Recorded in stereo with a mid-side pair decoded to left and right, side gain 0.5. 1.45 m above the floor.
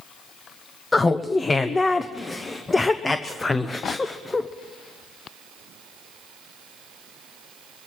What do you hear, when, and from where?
0.9 s laughter: 25° left, 0.6 m